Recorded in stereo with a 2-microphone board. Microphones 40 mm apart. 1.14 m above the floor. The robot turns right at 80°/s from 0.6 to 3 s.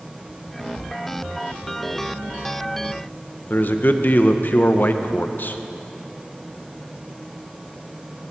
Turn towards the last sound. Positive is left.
turn(degrees=50)  # may be behind; listen again after turning